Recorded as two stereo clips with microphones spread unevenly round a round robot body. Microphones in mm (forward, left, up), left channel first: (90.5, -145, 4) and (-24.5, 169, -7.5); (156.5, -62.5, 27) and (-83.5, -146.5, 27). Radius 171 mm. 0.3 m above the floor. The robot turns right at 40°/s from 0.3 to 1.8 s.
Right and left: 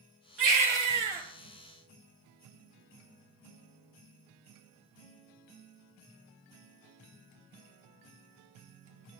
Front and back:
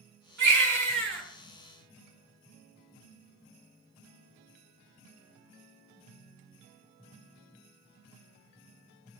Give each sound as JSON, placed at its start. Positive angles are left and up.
{"t": 0.4, "sound": "a baby crying", "azimuth_deg": 160, "distance_m": 4.5}